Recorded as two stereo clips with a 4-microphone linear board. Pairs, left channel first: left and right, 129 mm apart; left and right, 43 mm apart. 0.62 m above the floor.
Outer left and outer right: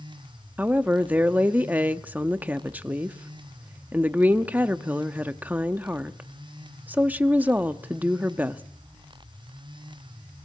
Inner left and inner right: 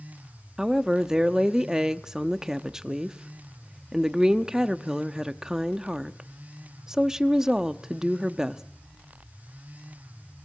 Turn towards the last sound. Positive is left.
turn(degrees=-15)  # may be behind; listen again after turning